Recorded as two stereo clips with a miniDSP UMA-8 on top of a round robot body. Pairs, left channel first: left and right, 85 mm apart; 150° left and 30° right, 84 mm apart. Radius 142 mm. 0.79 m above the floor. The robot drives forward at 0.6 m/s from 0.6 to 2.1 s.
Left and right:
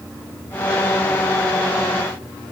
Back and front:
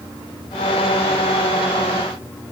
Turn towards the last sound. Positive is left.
No sound to turn to.